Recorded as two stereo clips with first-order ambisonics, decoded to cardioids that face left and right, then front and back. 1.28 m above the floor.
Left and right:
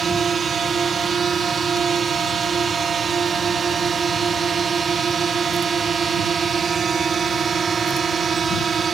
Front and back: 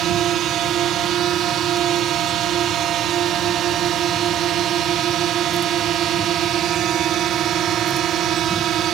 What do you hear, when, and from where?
0.0 s a drone: 145° right